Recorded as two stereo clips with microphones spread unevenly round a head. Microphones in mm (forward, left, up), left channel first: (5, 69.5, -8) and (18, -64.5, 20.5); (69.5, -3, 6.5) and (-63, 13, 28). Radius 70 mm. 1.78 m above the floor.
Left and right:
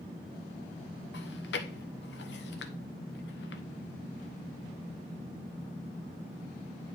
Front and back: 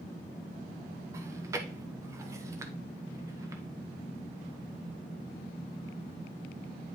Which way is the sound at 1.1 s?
110° left.